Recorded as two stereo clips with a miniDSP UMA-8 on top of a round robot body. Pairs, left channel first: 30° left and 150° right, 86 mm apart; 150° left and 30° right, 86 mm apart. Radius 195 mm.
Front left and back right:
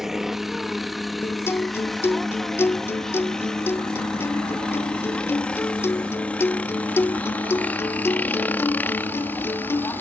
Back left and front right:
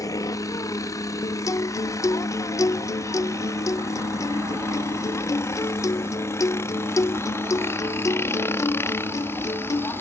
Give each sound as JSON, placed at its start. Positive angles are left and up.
{"t": 0.0, "sound": "a helicopter", "azimuth_deg": 125}
{"t": 1.2, "sound": "a guitar", "azimuth_deg": 95}